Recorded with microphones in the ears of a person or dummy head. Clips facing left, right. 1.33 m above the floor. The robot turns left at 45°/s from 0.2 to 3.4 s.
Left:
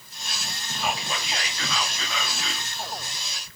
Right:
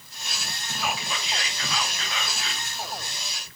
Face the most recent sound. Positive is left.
turn(degrees=35)